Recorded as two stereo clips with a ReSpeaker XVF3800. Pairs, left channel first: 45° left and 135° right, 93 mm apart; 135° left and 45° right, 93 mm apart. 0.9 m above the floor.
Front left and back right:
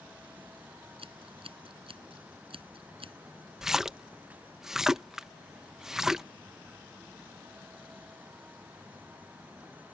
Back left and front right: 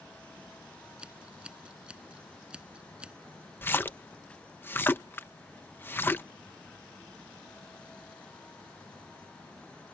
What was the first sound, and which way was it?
Scissors, 125° right.